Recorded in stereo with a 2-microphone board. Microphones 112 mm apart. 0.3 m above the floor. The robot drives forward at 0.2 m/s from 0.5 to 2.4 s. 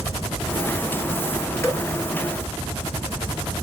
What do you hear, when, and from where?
1.6 s dripping: 25° left (ahead or behind), 1.4 m